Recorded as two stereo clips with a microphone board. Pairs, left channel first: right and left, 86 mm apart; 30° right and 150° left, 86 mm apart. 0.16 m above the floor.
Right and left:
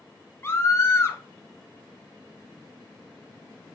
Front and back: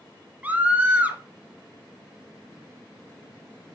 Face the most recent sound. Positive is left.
turn(degrees=-145)